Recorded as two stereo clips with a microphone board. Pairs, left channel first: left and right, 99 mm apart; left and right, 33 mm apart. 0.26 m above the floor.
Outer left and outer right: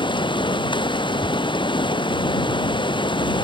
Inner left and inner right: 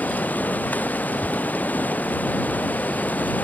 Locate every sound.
0.0 s running water: 55° left (ahead or behind)
1.2 s tearing paper: 5° left (ahead or behind)